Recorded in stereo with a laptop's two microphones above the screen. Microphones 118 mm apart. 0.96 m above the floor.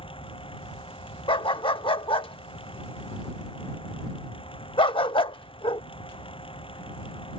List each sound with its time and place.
0.0 s a fan: 50° left (ahead or behind)
1.3 s a dog barking: 45° left (ahead or behind)